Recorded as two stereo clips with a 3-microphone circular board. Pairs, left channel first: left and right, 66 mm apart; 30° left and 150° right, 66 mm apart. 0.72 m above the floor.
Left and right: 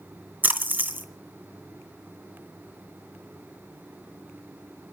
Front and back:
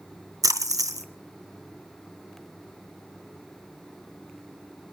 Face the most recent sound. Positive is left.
turn(degrees=-145)